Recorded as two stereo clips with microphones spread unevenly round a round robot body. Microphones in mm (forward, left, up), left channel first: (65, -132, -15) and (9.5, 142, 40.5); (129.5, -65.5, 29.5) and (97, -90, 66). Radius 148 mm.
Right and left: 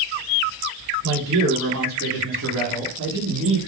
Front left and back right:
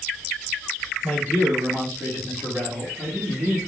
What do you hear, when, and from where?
1.0 s a man speaking: 160° left, 2.5 m; by 3.6 s 140° left, 1.1 m